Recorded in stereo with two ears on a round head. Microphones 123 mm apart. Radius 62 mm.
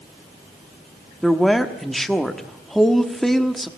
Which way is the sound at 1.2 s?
Centre (ahead or behind).